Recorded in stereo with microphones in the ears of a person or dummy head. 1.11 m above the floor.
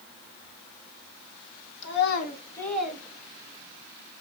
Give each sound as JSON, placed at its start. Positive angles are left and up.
{"t": 1.8, "sound": "a child speaking", "side_deg": 80, "distance_m": 1.4}